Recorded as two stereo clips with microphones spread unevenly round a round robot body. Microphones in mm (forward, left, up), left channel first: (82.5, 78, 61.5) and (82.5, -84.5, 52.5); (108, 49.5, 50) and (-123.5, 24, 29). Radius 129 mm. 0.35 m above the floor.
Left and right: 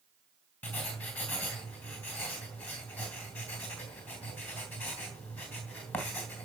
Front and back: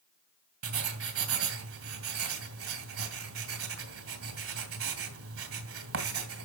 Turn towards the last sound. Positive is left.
turn(degrees=170)